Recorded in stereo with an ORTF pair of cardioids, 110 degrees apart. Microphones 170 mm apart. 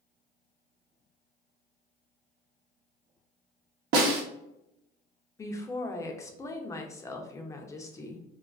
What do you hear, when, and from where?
3.9 s a snare drum: 70° right, 0.8 m
5.4 s a woman speaking: 15° left, 0.6 m